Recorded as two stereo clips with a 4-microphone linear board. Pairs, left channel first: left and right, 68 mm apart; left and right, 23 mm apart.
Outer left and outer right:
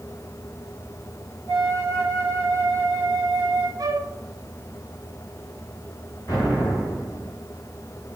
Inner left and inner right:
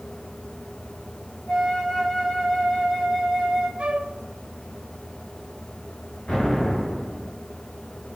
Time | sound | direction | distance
1.5 | a flute | 55° left (ahead or behind) | 1.6 m
3.8 | a flute | 65° right (ahead or behind) | 0.5 m
6.3 | an explosion | 65° left (ahead or behind) | 2.5 m